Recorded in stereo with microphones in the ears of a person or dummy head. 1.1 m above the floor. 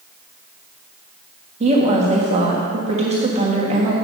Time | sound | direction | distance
1.6 | a woman speaking | 30° right (ahead or behind) | 1.3 m